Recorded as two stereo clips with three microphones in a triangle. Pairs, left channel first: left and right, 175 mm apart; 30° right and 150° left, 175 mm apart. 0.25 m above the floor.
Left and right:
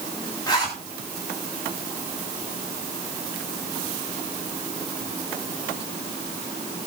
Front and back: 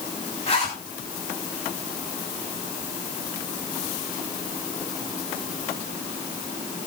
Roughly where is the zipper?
Ahead.